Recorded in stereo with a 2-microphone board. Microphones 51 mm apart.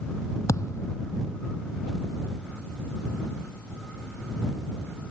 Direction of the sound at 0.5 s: 90° left.